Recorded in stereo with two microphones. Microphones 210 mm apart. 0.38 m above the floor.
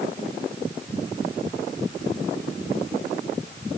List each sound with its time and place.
Only background noise.